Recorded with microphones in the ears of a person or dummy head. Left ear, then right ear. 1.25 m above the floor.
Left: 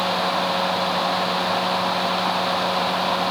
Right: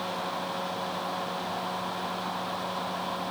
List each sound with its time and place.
Only background noise.